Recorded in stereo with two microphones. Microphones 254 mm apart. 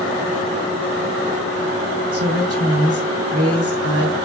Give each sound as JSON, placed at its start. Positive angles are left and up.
{"t": 2.1, "sound": "a woman speaking", "side_deg": -65, "distance_m": 2.0}